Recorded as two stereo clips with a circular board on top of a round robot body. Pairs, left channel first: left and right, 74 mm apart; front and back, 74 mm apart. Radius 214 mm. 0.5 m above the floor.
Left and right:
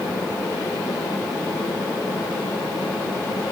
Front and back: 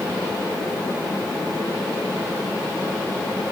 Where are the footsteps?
No footsteps in this recording.